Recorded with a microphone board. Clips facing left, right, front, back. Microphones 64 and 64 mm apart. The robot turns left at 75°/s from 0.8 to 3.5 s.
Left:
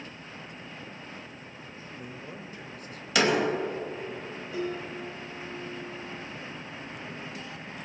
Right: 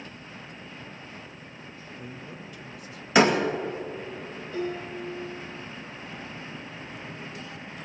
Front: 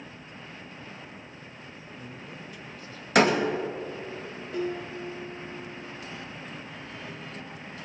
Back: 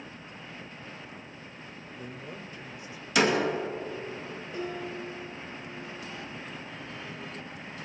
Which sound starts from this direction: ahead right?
A door slam, at 3.1 s.